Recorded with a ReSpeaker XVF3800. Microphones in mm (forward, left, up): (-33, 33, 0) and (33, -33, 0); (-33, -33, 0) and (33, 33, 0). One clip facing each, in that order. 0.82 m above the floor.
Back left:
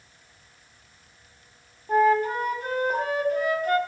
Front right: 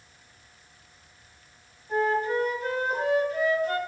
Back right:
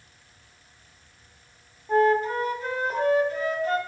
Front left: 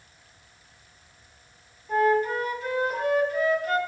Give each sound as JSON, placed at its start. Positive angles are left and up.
{"t": 1.9, "sound": "a flute", "azimuth_deg": 170, "distance_m": 2.0}